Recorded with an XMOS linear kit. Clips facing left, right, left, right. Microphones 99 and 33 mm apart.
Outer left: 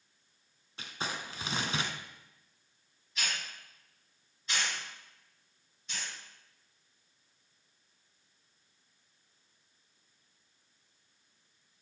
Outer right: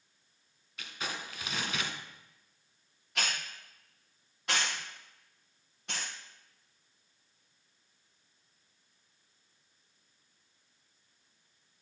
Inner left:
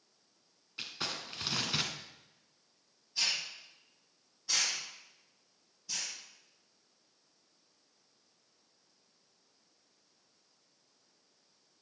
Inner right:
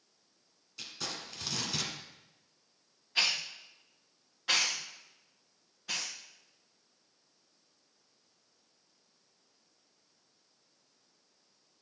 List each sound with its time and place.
0.8 s crumpling: 30° left (ahead or behind), 1.3 m
3.1 s a hiss: 70° right (ahead or behind), 3 m